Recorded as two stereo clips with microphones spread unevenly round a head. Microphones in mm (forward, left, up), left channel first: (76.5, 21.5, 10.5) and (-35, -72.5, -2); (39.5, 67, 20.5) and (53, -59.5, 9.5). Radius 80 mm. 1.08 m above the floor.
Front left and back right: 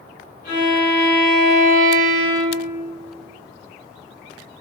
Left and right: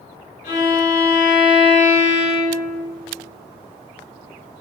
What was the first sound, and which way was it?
A violin, 80° left.